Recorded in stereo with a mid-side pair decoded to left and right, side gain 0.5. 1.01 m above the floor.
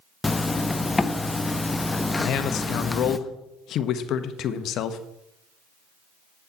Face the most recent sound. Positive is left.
turn(degrees=65)